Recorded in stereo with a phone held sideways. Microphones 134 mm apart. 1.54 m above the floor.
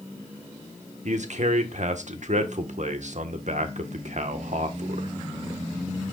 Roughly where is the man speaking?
Right.